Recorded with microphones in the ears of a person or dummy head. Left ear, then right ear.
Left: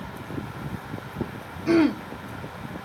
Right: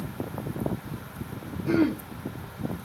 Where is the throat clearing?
25° left (ahead or behind), 1.0 m.